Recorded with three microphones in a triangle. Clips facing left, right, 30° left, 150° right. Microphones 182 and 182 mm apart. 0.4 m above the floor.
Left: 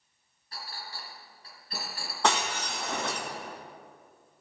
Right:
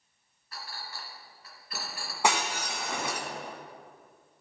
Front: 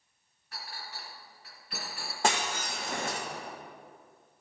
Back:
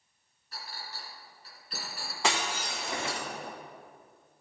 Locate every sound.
0.5 s a clink: 35° left, 2 m
2.2 s breaking glass: 10° right, 1.5 m